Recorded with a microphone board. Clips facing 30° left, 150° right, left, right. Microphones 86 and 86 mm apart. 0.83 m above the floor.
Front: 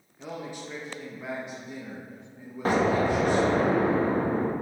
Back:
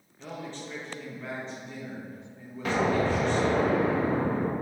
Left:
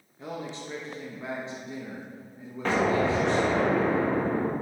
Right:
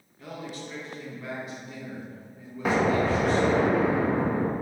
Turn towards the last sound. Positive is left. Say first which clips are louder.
# front 2 dB, right 1 dB
turn(degrees=-10)